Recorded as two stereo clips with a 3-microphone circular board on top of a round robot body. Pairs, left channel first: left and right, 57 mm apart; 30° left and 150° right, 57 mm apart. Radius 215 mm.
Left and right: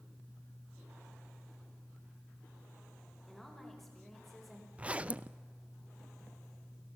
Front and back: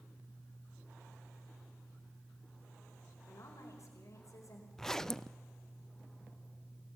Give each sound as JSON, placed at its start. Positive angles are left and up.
{"t": 3.3, "sound": "a woman speaking", "azimuth_deg": 5, "distance_m": 4.5}
{"t": 4.8, "sound": "a zipper", "azimuth_deg": -45, "distance_m": 0.7}